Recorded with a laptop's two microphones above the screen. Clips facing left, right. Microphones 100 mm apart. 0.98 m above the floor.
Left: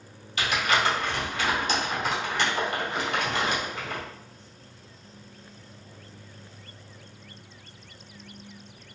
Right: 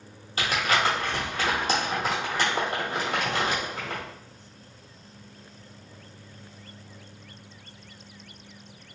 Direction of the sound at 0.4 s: 35° right (ahead or behind).